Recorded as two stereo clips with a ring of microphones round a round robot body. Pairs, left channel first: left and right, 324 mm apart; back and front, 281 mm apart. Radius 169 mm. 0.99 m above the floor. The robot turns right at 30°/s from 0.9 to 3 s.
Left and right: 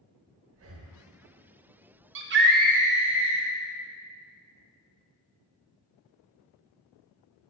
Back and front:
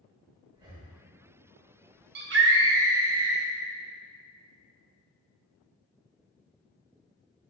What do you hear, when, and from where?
0.5 s breathing: 70° right, 0.8 m
2.1 s a scream: 45° right, 1.1 m; by 3.5 s 20° right, 1.1 m